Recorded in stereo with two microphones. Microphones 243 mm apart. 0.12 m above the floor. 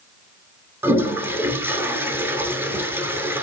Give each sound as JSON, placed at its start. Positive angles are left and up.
{"t": 0.8, "sound": "a toilet flushing", "side_deg": -10, "distance_m": 0.8}